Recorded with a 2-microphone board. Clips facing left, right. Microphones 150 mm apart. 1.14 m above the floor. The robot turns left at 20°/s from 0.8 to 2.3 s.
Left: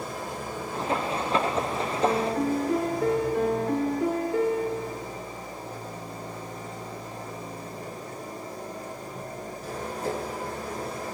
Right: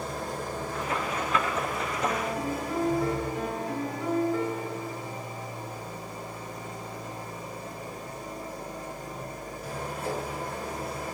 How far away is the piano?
About 1.7 m.